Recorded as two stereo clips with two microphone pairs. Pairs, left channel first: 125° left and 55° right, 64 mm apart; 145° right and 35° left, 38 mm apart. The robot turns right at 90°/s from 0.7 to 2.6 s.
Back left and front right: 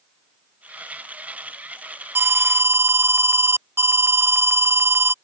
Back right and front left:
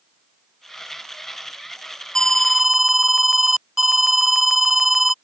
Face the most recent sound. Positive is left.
turn(degrees=-45)